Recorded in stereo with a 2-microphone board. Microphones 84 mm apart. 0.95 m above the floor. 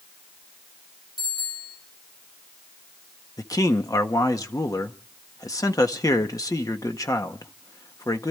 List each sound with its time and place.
1.2 s a bicycle bell: 60° left (ahead or behind), 8.5 m
3.4 s a man speaking: 45° left (ahead or behind), 1.4 m